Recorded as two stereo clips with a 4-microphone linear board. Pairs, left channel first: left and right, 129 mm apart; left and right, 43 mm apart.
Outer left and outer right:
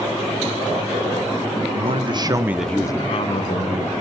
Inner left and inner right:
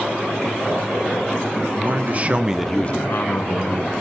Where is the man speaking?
50° right (ahead or behind), 1.3 m; by 4.0 s 70° left (ahead or behind), 1.6 m.